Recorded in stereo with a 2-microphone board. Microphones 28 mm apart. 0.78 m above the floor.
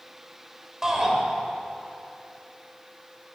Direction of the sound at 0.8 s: 20° right (ahead or behind).